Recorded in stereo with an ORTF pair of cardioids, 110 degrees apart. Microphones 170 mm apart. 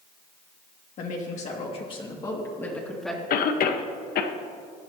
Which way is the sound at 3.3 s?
60° left.